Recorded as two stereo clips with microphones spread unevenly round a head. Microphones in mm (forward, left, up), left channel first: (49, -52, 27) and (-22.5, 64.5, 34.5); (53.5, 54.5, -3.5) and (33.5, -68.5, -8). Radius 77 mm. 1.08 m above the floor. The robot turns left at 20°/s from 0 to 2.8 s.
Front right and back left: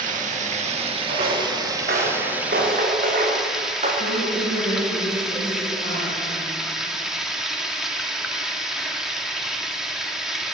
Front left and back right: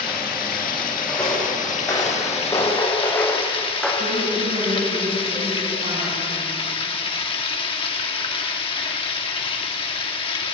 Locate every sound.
0.0 s running water: 90° left, 1.8 m; by 10.5 s 35° left, 1.8 m
1.1 s footsteps: 165° left, 6 m; by 3.9 s 170° left, 4.5 m
4.0 s a woman speaking: 80° right, 8 m